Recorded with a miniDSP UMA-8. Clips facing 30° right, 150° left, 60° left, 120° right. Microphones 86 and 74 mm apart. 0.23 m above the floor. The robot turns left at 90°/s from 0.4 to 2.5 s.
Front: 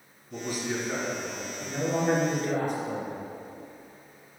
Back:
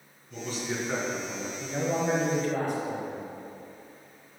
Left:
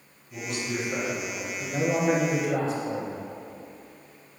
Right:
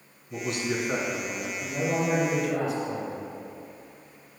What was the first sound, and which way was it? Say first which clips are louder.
A man speaking: front 2 dB, right 2 dB; 100° right.